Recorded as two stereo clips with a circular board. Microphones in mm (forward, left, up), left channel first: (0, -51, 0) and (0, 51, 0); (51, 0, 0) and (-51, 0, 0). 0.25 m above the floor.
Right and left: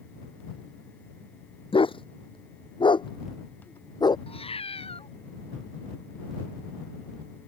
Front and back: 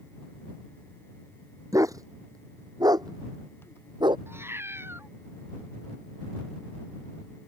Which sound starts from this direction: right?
A cat meowing, at 4.3 s.